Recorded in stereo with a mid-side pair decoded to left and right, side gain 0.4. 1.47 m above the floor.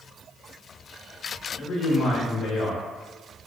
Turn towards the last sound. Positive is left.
turn(degrees=65)